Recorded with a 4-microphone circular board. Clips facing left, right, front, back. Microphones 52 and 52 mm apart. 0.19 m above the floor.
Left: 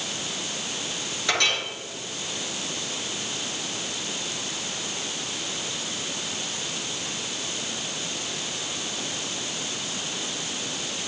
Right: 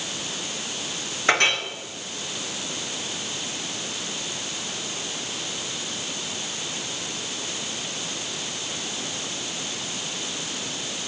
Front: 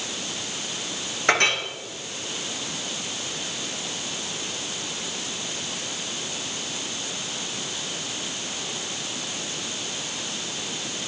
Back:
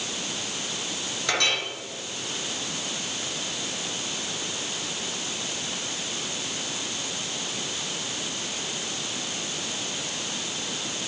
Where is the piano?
I don't hear a piano.